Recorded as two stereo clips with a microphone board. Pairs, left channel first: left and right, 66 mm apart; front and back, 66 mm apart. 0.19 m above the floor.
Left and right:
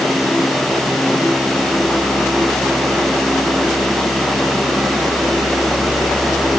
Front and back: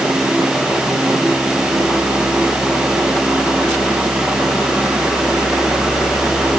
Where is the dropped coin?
I don't hear a dropped coin.